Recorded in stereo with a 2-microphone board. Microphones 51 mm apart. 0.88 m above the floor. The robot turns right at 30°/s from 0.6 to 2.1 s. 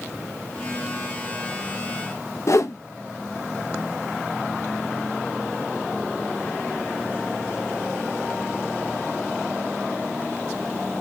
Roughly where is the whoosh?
Left.